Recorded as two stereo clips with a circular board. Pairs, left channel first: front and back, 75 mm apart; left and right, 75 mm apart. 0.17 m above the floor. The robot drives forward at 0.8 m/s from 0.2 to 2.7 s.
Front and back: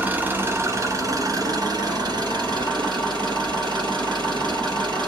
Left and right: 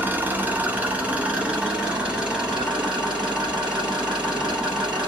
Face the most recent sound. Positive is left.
turn(degrees=-170)